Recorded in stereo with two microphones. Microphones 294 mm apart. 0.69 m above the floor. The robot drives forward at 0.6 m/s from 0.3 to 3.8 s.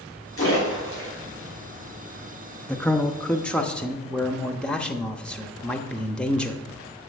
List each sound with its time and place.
0.4 s a splash: 45° left (ahead or behind), 5 m
2.7 s a man speaking: 5° left (ahead or behind), 0.6 m